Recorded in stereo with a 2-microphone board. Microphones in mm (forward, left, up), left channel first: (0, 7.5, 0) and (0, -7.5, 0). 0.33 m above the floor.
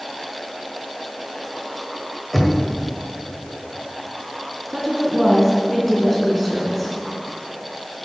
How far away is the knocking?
About 1.5 m.